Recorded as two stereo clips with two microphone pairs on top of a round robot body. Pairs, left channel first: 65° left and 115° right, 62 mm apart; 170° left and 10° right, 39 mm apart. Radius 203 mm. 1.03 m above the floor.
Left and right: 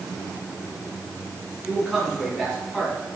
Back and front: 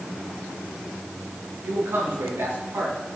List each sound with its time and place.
1.6 s a man speaking: 25° right, 8 m; by 3.2 s 15° right, 9.5 m